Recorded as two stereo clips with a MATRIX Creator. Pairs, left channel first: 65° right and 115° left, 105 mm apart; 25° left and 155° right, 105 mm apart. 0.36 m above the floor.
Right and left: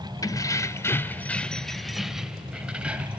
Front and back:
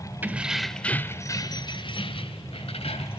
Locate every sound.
0.2 s keys jangling: 95° right, 0.9 m; by 3.2 s 35° left, 1.7 m